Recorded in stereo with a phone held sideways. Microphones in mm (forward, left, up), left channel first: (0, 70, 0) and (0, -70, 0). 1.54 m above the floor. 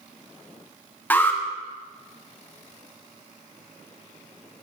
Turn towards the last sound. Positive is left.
turn(degrees=15)  # may be behind; listen again after turning